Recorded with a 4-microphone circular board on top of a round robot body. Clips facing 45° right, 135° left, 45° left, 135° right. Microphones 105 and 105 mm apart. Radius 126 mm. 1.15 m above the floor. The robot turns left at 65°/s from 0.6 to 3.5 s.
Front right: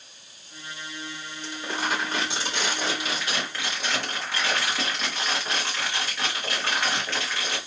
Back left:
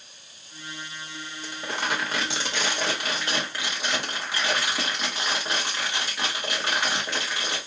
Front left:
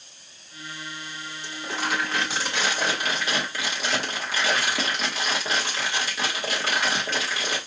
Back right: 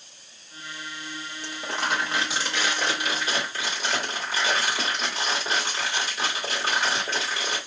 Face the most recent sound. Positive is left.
turn(degrees=60)